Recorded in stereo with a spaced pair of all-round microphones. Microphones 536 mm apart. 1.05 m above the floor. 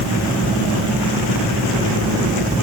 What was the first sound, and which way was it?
Only background noise.